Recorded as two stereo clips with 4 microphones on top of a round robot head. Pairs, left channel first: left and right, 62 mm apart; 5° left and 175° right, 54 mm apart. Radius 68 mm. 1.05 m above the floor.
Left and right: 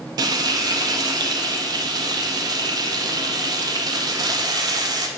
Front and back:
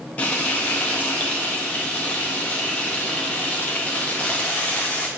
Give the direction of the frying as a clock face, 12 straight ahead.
2 o'clock.